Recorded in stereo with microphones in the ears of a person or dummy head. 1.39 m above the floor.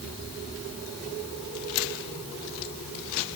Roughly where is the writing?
I don't hear writing.